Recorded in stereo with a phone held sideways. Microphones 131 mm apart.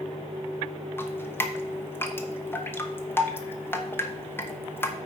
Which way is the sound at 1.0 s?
15° left (ahead or behind).